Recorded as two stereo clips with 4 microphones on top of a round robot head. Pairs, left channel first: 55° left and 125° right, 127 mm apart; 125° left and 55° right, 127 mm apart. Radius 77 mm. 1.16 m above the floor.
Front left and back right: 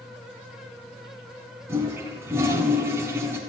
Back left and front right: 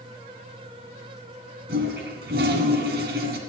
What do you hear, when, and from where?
1.7 s a toilet flushing: 55° right, 2 m